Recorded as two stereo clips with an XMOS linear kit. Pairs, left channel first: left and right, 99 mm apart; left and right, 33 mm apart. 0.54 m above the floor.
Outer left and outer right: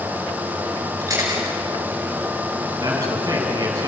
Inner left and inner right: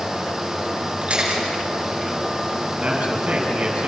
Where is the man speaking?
40° right (ahead or behind), 5.5 m.